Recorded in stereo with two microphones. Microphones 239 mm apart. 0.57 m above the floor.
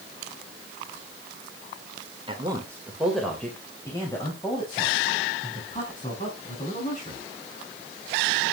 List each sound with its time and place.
2.3 s a man speaking: 20° right (ahead or behind), 2 m; by 7.2 s 35° left (ahead or behind), 6.5 m